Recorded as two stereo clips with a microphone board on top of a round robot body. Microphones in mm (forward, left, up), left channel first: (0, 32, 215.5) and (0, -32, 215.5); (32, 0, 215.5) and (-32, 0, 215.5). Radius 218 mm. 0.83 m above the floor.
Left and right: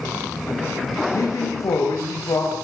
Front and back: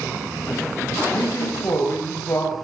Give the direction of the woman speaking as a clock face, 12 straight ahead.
10 o'clock.